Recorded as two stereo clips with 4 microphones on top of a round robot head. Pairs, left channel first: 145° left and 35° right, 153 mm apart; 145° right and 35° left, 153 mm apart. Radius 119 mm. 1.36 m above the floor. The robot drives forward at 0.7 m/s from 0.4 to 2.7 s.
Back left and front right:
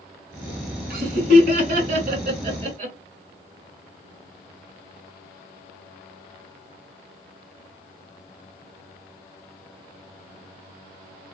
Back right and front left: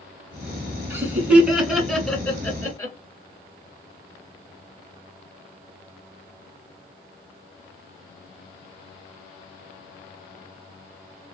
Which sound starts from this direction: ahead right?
Laughter, at 0.9 s.